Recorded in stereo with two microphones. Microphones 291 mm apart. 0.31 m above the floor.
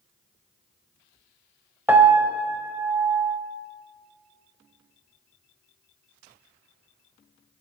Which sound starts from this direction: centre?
A piano, at 1.9 s.